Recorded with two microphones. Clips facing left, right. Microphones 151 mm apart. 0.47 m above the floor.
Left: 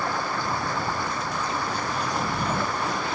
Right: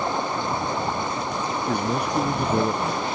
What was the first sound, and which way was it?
Running water, 20° right (ahead or behind).